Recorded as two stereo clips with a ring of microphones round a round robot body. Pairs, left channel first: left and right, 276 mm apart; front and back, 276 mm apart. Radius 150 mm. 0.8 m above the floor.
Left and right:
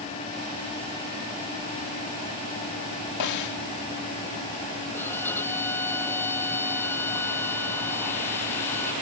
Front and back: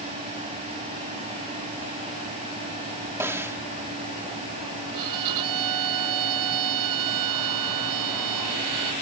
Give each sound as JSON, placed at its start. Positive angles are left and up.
{"t": 3.2, "sound": "a snare drum", "azimuth_deg": 100}
{"t": 4.9, "sound": "a violin", "azimuth_deg": 175}